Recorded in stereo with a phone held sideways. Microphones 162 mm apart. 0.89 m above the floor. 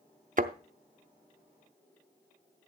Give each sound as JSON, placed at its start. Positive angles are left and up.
{"t": 0.4, "sound": "a thud", "side_deg": -55, "distance_m": 0.6}